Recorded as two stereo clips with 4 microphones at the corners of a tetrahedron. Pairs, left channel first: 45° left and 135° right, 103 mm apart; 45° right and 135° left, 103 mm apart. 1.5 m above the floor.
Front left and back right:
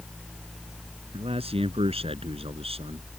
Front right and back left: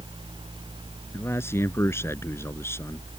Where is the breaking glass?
No breaking glass in this recording.